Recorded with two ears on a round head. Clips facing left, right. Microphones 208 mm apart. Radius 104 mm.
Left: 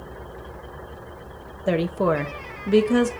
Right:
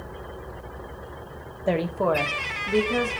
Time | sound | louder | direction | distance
1.7 | a woman speaking | left 2 dB | 10° left (ahead or behind) | 0.7 m